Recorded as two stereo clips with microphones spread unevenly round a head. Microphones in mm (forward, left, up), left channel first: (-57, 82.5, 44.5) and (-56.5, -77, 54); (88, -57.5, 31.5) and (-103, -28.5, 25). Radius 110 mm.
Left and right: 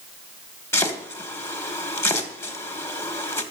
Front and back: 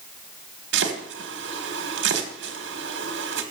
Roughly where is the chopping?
Behind.